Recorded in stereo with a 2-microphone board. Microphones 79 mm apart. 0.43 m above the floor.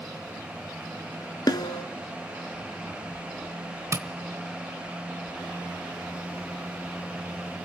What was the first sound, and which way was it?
A snare drum, 60° left (ahead or behind).